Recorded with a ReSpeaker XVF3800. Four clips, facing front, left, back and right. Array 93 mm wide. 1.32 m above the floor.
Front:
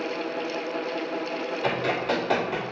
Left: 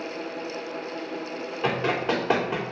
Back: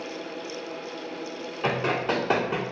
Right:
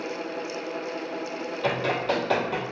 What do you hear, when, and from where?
1.6 s running footsteps: 125° left, 1.6 m